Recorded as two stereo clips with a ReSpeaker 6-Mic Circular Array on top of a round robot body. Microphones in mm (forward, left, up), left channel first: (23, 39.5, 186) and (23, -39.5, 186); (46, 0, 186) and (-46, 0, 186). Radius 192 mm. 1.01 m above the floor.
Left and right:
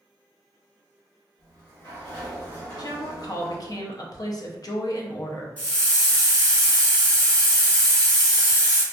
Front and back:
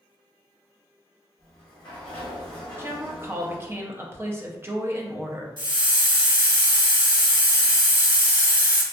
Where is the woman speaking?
120° left, 0.6 m.